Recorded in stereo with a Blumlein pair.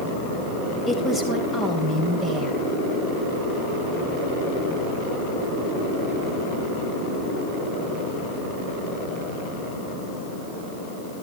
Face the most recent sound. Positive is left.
turn(degrees=20)